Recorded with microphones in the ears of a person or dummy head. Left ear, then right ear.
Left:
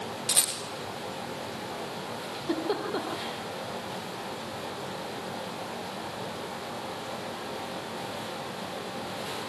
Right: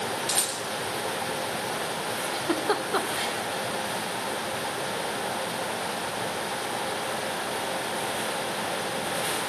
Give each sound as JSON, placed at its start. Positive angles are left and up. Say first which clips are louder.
{"t": 0.3, "sound": "a rattle", "louder": "even", "side_deg": 0, "distance_m": 4.0}
{"t": 2.2, "sound": "a giggle", "louder": "right 4 dB", "side_deg": -40, "distance_m": 2.0}